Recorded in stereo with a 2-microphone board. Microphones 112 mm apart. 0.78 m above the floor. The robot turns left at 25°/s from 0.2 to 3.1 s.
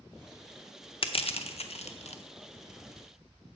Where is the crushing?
55° left (ahead or behind), 0.7 m; by 2.2 s 80° left, 0.7 m.